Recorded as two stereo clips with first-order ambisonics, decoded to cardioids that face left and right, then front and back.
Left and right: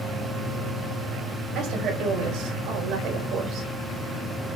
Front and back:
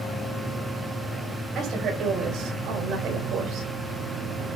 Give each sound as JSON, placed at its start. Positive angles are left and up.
{"t": 1.6, "sound": "a woman speaking", "azimuth_deg": -130, "distance_m": 5.0}